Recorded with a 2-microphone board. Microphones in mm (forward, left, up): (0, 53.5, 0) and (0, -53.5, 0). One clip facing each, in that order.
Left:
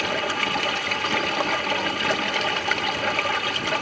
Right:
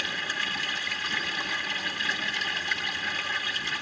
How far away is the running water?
About 0.9 m.